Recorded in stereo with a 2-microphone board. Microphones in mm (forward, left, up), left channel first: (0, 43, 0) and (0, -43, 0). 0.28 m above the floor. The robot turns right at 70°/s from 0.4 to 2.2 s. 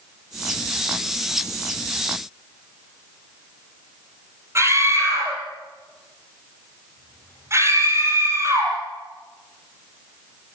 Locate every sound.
4.5 s a scream: 30° right (ahead or behind), 7 m